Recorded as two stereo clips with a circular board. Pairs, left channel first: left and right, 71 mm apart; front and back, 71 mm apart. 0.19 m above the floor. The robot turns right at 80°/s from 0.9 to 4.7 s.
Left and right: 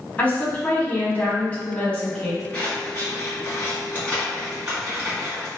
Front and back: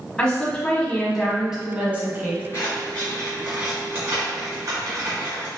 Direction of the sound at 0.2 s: 65° left.